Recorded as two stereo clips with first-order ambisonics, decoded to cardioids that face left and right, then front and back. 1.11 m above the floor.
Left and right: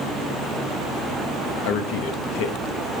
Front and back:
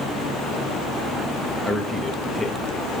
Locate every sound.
1.6 s a man speaking: 90° left, 1.4 m